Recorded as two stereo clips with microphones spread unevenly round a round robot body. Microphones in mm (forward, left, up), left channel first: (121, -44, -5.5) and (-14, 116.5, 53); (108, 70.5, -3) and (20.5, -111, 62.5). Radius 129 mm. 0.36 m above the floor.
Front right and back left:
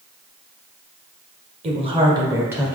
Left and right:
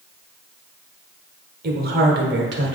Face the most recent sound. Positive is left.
turn(degrees=-125)